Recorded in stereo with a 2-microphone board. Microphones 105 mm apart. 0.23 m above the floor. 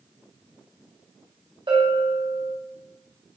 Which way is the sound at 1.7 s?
50° right (ahead or behind).